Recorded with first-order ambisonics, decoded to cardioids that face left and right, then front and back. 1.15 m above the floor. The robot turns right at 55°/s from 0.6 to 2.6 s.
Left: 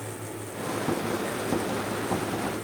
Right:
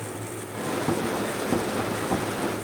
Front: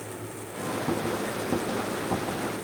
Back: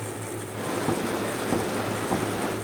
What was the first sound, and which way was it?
Only background noise.